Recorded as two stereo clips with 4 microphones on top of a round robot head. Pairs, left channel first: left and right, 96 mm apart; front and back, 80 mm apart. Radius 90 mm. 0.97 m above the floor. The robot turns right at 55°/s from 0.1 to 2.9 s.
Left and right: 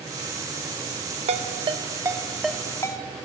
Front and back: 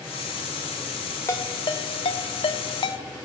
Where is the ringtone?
65° right, 1.1 m; by 3.0 s 25° left, 1.1 m.